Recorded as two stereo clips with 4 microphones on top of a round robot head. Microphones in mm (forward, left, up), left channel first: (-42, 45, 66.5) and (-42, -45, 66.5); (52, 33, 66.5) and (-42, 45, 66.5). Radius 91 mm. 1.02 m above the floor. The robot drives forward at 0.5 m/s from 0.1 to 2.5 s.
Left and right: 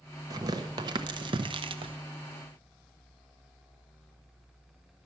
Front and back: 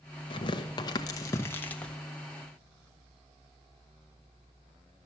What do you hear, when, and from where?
0.3 s tearing paper: 40° right, 1.2 m; by 2.0 s 90° right, 0.8 m